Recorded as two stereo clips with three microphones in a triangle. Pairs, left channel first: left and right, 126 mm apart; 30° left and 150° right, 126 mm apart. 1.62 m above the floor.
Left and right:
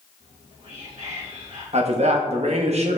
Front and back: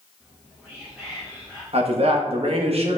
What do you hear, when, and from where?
0.2 s whispering: 65° right, 2.5 m
1.7 s a man speaking: 115° right, 1.8 m